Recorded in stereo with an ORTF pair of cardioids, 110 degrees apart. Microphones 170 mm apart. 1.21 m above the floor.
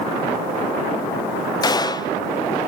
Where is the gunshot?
25° left, 0.6 m.